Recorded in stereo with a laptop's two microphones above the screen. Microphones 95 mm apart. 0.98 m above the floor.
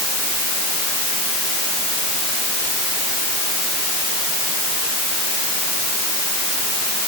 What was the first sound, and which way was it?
Only background noise.